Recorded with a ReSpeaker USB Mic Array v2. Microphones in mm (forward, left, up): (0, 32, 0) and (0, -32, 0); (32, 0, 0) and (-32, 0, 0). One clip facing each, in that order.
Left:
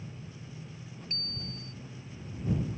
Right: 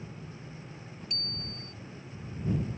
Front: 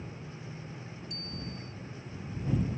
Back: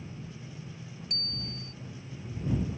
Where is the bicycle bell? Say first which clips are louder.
Even, back 1 dB; 150° left.